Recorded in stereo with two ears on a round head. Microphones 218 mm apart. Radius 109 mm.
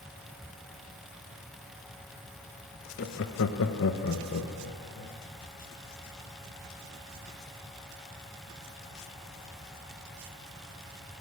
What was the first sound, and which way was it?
Laughter, 45° left (ahead or behind).